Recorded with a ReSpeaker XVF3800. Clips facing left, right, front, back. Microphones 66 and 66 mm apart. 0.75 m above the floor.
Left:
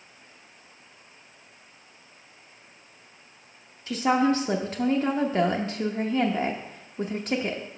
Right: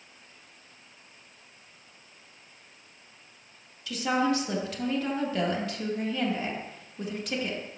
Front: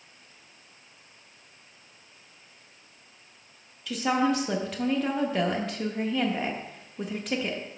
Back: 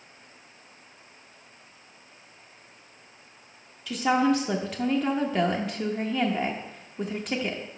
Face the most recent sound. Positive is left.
turn(degrees=95)